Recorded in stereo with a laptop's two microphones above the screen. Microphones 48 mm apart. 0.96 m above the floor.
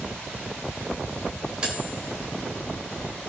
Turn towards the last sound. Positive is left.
turn(degrees=-25)  # may be behind; listen again after turning